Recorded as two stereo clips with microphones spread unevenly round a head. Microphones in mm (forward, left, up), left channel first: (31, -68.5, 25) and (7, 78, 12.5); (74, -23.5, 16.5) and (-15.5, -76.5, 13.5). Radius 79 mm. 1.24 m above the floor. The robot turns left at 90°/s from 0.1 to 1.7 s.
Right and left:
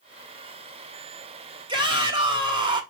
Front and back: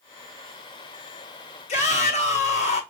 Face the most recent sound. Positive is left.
turn(degrees=40)